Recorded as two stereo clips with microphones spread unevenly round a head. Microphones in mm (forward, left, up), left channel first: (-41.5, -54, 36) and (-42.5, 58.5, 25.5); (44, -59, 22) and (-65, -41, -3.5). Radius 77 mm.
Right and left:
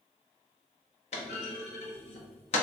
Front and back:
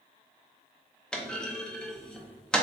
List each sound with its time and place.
1.1 s a clunk: 80° right, 0.6 m